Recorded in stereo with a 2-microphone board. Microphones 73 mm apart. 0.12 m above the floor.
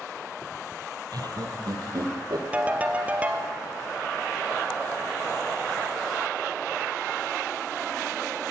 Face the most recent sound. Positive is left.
turn(degrees=-20)  # may be behind; listen again after turning